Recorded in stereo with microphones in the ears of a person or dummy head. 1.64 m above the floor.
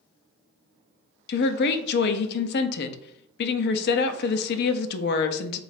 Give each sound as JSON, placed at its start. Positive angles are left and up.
{"t": 1.3, "sound": "a woman speaking", "side_deg": 60, "distance_m": 0.6}